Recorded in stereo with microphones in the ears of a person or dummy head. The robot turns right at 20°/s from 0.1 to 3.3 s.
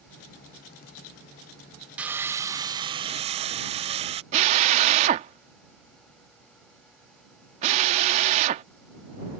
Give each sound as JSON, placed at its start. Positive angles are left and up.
{"t": 2.0, "sound": "sawing", "side_deg": -10}
{"t": 4.3, "sound": "a drill", "side_deg": -30}